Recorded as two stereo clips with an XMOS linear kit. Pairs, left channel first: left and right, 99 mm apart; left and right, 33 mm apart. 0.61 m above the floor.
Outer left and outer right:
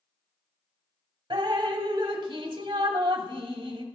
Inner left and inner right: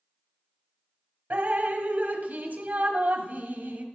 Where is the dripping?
55° right (ahead or behind), 1.1 m.